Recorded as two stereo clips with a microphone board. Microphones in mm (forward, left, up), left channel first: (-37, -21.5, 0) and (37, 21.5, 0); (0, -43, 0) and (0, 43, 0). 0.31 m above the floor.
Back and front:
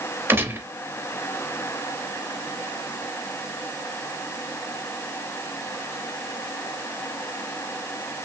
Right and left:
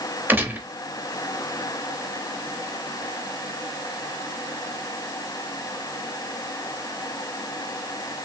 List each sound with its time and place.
0.3 s a gunshot: 50° left, 0.6 m